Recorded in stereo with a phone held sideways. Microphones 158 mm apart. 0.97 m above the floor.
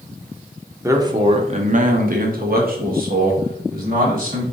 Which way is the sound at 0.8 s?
15° right (ahead or behind).